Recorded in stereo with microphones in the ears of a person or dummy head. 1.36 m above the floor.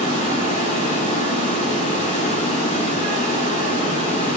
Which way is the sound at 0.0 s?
40° left (ahead or behind).